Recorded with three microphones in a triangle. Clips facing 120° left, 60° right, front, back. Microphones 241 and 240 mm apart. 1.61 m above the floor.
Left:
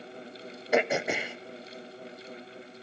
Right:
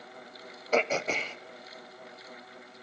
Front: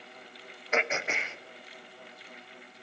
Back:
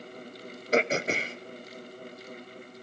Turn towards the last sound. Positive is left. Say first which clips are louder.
# left 2 dB, back 6 dB
turn(degrees=-165)